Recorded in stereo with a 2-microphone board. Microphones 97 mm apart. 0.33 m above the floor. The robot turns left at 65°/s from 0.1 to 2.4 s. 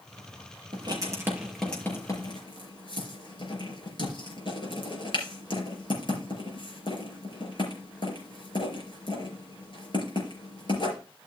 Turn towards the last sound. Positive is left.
turn(degrees=50)  # may be behind; listen again after turning